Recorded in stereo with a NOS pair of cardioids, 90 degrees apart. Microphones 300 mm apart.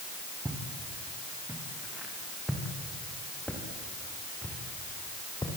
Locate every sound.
0.5 s footsteps: 10° right, 7 m; by 5.5 s 15° left, 7.5 m